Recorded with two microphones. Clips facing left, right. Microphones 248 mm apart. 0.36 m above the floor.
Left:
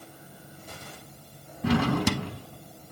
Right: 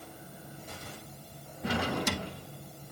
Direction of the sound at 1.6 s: 85° left.